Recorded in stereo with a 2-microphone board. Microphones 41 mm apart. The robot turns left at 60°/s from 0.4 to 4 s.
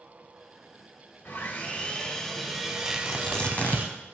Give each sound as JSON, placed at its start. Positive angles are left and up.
{"t": 1.2, "sound": "sawing", "azimuth_deg": 80, "distance_m": 2.0}
{"t": 2.9, "sound": "tearing paper", "side_deg": -10, "distance_m": 1.1}